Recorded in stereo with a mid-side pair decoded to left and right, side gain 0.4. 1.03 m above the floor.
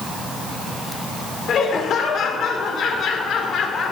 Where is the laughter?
65° left, 2.5 m.